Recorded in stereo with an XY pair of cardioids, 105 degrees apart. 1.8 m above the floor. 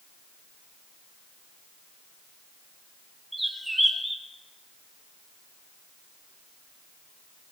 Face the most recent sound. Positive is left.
turn(degrees=0)